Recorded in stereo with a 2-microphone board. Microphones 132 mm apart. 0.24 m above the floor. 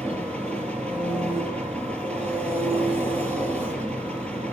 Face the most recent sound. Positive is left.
turn(degrees=10)  # may be behind; listen again after turning